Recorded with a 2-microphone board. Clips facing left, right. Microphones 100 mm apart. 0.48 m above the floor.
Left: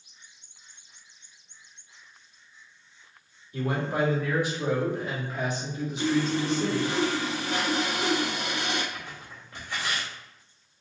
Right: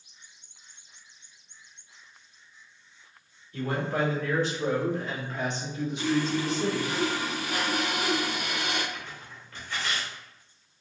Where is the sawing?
30° left (ahead or behind), 0.9 m.